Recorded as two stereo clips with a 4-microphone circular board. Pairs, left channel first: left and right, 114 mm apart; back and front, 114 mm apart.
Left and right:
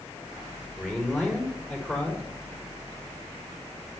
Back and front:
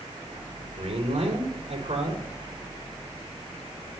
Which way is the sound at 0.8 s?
5° right.